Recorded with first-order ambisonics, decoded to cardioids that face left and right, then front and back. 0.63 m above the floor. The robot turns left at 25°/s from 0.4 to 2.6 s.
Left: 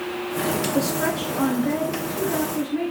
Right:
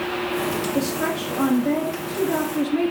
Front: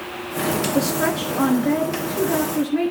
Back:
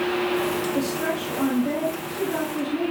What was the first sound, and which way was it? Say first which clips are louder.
A woman speaking: left 1 dB, front 4 dB; 10° left.